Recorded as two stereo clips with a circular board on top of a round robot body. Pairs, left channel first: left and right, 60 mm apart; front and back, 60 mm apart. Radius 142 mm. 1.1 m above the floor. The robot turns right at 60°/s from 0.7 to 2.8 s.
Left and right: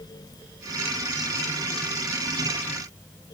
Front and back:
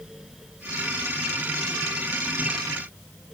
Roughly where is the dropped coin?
I don't hear a dropped coin.